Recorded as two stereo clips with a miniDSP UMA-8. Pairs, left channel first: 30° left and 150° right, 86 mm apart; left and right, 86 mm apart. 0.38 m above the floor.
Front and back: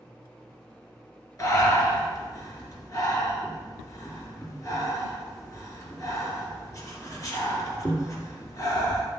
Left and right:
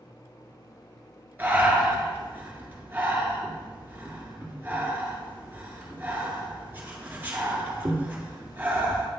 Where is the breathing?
25° right, 1.9 m.